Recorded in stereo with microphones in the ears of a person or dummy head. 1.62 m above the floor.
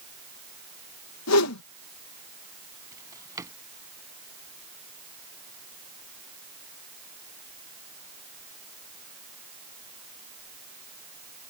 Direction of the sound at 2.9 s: 15° right (ahead or behind).